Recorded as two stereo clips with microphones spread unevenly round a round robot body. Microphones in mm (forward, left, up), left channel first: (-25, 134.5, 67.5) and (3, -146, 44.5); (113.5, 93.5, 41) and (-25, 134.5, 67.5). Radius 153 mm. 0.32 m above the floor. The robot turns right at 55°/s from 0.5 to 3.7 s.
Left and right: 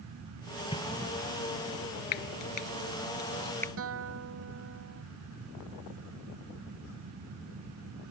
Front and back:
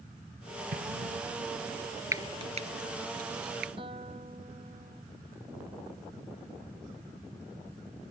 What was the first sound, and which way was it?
An explosion, 165° left.